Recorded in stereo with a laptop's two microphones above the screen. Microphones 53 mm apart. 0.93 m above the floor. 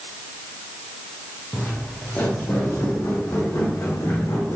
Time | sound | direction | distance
1.5 | footsteps | 35° left (ahead or behind) | 3 m